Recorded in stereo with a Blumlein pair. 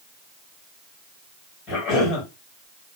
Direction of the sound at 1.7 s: 30° left.